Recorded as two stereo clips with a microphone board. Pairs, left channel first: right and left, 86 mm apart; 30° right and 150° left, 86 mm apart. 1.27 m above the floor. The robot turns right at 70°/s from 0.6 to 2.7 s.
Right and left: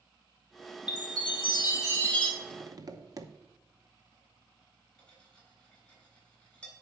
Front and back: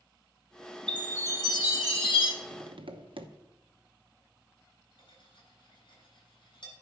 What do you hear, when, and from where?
0.9 s a chime: 110° right, 2 m; by 2.3 s 10° right, 2 m
2.4 s tapping: 115° left, 0.8 m; by 3.3 s 135° left, 0.8 m
5.0 s cutlery clinking: 10° right, 4 m